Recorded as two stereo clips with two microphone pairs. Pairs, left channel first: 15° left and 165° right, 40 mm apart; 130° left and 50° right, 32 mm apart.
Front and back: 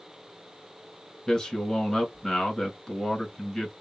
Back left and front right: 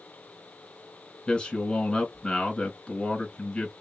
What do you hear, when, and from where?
1.3 s a man speaking: 80° left, 1.8 m